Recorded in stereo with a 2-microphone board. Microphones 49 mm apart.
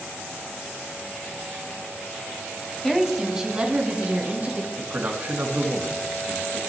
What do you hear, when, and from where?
2.8 s a woman speaking: 5° left (ahead or behind), 1.2 m; by 4.7 s 35° right (ahead or behind), 3 m
4.8 s a man speaking: 45° right (ahead or behind), 2 m